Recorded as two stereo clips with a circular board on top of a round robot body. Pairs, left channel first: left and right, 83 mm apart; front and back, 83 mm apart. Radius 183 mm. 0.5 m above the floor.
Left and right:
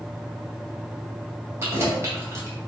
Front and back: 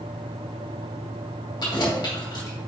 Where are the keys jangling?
30° right, 2.5 m.